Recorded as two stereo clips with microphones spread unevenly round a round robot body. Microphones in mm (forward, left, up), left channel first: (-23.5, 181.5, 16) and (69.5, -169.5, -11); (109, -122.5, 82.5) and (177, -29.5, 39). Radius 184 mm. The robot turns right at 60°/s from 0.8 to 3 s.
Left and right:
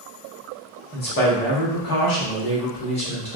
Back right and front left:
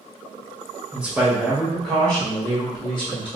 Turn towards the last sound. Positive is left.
turn(degrees=175)